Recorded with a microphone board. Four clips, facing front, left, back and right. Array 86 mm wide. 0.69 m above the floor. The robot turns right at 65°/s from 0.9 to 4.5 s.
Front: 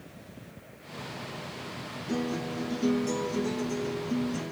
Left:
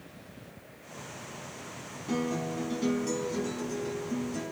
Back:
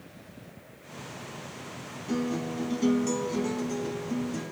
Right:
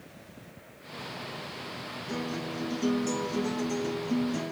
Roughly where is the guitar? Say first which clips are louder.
Left 4 dB, back 2 dB; left.